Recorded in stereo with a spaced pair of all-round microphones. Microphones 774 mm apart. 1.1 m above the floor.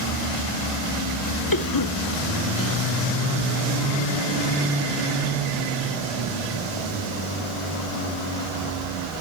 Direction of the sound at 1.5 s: 25° left (ahead or behind).